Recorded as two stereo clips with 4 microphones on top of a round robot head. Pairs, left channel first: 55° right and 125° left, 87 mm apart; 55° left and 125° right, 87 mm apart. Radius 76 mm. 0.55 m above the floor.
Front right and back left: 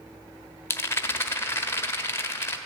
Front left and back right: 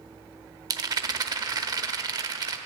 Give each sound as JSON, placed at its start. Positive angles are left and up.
{"t": 0.7, "sound": "a rattle", "azimuth_deg": -105, "distance_m": 1.1}